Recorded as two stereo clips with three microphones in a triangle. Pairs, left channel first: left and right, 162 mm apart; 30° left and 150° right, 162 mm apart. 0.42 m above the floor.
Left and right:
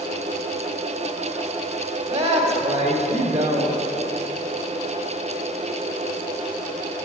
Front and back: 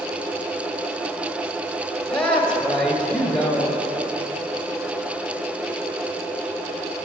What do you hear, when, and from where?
2.1 s a woman speaking: 55° right, 2.5 m